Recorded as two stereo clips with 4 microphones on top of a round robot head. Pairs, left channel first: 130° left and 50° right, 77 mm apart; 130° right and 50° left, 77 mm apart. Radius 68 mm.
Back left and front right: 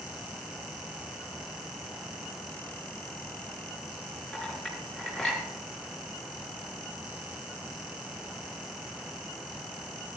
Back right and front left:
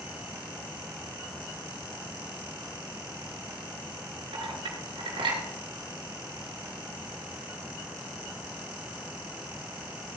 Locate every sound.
4.3 s a clink: 50° left, 4 m